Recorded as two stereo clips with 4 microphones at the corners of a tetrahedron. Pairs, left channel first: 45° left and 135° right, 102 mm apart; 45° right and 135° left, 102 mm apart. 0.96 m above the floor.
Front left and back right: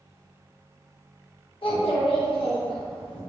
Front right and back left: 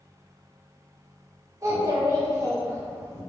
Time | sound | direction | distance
1.6 | a child speaking | 75° left | 0.8 m